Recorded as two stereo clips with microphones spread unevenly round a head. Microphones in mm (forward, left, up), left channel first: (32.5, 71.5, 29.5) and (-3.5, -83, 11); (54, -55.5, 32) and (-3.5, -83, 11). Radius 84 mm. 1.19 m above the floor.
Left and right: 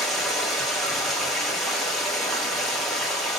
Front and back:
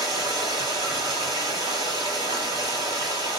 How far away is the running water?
About 0.9 m.